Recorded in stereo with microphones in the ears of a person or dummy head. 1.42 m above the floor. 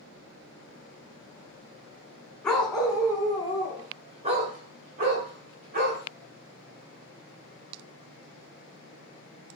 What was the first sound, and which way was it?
A dog barking, 10° left (ahead or behind).